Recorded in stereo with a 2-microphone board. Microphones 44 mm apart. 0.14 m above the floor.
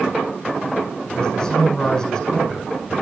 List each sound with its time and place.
1.1 s a man speaking: 15° left (ahead or behind), 8 m